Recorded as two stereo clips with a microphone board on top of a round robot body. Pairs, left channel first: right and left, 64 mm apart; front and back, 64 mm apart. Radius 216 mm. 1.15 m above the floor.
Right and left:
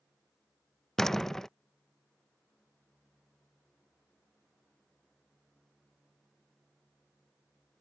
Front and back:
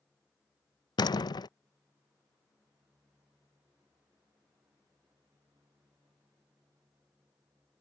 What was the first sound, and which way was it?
A door slam, 5° right.